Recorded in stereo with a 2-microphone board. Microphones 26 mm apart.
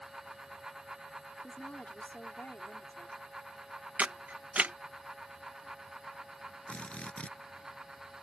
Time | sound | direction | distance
1.4 | a woman speaking | 70° left (ahead or behind) | ?
4.0 | a camera shutter | 70° right (ahead or behind) | ?
6.7 | a drill | 50° left (ahead or behind) | ?